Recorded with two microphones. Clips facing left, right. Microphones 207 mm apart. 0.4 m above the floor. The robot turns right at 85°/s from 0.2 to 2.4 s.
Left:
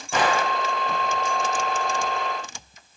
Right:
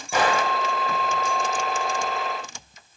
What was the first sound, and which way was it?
A gunshot, 10° right (ahead or behind).